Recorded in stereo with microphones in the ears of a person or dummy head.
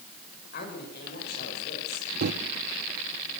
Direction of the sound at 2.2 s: 50° right (ahead or behind).